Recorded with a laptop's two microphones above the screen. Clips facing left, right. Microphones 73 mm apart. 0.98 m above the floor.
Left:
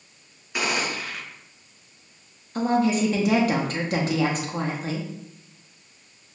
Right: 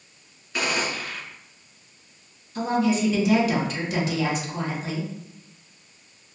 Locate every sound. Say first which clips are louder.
0.5 s a gunshot: even; 15° left (ahead or behind), 1.9 m
2.5 s a woman speaking: left 1 dB; 45° left (ahead or behind), 0.8 m